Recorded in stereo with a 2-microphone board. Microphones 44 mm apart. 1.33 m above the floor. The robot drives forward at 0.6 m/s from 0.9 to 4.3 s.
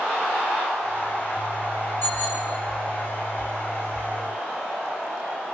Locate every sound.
2.0 s a bicycle bell: 50° left (ahead or behind), 7 m